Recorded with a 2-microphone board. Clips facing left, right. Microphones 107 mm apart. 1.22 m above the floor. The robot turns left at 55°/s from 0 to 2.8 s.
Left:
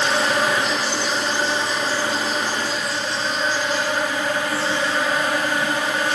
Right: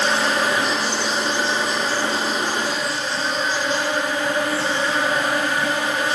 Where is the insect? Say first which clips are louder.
Even; 125° left, 1.6 m; by 6.2 s 25° right, 1.6 m.